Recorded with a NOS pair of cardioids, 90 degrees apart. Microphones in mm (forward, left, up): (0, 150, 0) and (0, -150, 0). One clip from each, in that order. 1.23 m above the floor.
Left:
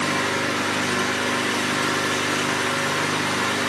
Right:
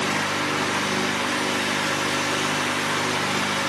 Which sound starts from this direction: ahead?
An engine running, at 0.0 s.